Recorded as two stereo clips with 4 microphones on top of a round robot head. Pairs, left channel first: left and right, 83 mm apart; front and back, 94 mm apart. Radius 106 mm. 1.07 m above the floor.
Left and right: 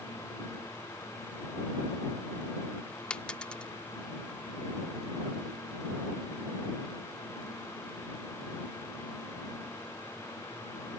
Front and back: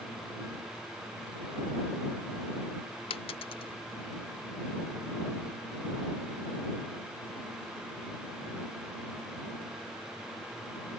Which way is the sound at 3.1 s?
10° left.